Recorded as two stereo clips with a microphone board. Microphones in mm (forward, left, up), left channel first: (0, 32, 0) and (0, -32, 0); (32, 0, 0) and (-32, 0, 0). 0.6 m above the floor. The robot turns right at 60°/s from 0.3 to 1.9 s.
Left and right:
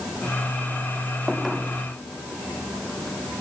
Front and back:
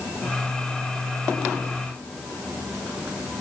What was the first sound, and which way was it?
Only background noise.